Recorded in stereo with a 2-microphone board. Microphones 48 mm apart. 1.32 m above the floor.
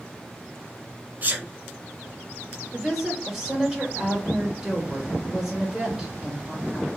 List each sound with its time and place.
1.2 s a sneeze: 40° right (ahead or behind), 0.8 m
2.7 s a woman speaking: 10° right (ahead or behind), 1.4 m